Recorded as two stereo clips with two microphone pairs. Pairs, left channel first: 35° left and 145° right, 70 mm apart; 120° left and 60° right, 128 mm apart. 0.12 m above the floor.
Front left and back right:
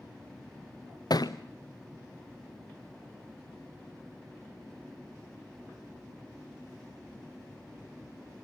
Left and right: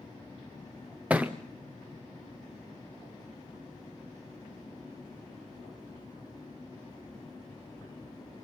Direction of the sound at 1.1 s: 20° left.